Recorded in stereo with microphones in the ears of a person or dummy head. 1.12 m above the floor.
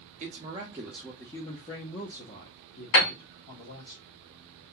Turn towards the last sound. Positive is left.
turn(degrees=60)  # may be behind; listen again after turning